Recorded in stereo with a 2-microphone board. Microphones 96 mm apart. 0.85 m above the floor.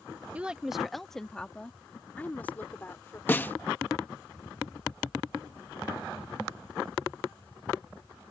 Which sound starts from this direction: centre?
A woman speaking, at 0.3 s.